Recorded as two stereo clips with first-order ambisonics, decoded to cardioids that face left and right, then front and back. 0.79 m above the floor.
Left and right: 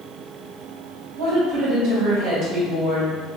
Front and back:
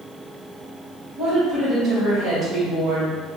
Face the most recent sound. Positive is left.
turn(degrees=-115)